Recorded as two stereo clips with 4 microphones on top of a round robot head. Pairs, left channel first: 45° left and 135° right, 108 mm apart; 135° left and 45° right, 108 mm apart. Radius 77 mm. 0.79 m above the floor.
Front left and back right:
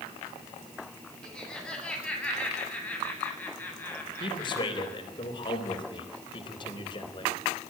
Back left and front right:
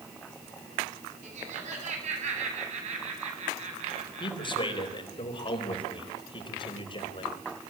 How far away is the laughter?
About 8.5 m.